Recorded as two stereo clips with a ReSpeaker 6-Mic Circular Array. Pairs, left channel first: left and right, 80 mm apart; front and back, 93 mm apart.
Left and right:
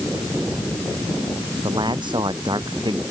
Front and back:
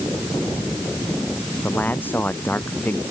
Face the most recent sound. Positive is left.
turn(degrees=-70)